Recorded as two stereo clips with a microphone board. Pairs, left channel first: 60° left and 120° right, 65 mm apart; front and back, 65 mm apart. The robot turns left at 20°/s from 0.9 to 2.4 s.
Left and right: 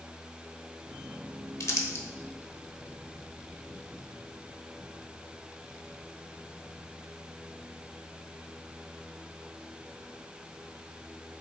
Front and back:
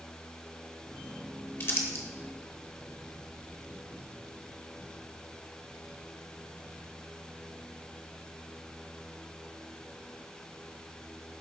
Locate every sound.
1.6 s crumpling: 40° left, 0.9 m; by 2.0 s 30° left, 0.9 m